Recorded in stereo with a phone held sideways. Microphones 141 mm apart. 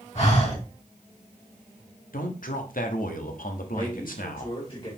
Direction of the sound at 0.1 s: 50° left (ahead or behind).